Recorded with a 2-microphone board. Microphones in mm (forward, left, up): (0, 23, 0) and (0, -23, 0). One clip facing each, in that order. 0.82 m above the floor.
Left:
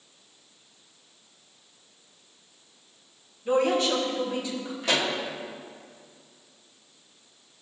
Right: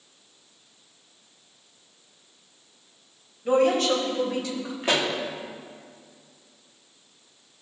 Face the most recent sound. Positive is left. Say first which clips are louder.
# right 2 dB
turn(degrees=-30)  # may be behind; listen again after turning